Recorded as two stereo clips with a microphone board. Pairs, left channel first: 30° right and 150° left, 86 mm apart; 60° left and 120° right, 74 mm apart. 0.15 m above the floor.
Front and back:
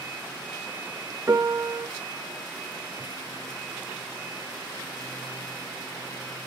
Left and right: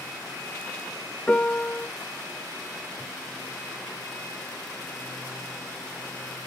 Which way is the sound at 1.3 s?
130° left.